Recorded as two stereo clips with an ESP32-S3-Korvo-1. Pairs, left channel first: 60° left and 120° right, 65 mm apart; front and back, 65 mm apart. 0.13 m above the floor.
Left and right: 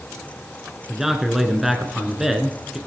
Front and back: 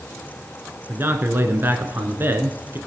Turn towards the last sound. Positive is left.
turn(degrees=160)